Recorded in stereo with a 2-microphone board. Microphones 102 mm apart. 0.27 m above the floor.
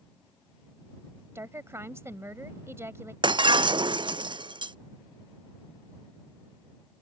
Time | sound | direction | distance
1.4 | a woman speaking | 25° right (ahead or behind) | ?
3.2 | breaking glass | 50° right (ahead or behind) | ?